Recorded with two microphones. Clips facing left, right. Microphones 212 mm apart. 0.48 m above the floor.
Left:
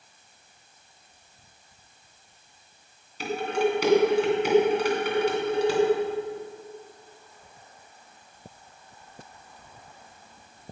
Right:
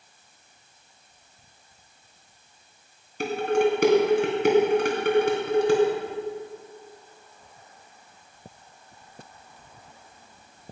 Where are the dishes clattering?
60° right (ahead or behind), 2.5 m.